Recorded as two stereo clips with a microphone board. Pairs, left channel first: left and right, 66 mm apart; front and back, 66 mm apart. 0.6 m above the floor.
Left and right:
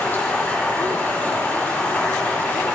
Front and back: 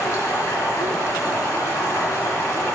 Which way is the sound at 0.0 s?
30° left.